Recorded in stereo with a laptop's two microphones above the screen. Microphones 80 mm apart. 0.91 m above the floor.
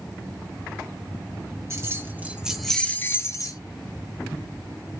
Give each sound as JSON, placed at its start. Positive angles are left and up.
{"t": 1.7, "sound": "keys jangling", "side_deg": -40, "distance_m": 0.8}